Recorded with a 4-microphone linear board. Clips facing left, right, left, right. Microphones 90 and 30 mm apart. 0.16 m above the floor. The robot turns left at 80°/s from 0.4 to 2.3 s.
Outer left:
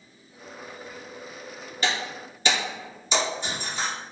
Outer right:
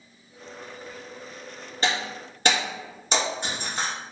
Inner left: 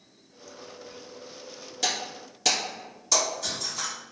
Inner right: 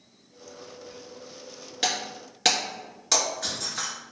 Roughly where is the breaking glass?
Right.